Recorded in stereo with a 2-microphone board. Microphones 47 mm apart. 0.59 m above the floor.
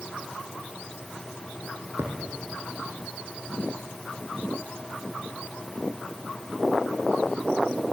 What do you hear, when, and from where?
2.0 s a thud: 85° right, 5 m